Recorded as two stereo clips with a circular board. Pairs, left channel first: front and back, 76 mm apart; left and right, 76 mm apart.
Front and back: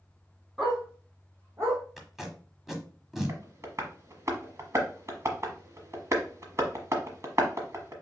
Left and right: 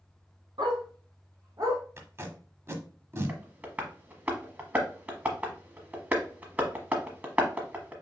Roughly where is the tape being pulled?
Right.